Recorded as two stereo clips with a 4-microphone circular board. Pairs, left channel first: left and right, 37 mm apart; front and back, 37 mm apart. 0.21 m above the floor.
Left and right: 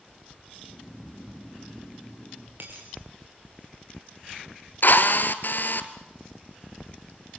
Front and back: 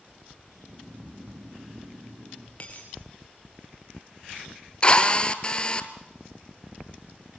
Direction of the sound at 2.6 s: 60° right.